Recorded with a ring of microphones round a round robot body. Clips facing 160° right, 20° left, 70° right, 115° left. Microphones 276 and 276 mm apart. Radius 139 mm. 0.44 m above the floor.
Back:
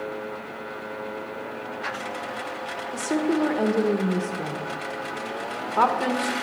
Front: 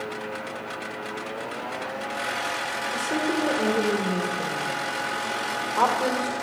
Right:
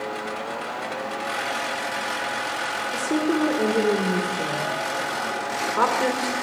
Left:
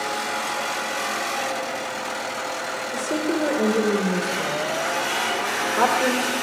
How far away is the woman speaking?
About 1.2 m.